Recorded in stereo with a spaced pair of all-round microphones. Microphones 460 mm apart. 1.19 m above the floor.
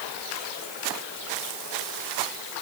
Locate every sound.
Only background noise.